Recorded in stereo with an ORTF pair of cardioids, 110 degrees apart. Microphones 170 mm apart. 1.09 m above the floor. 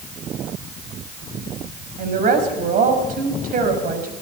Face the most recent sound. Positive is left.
turn(degrees=-60)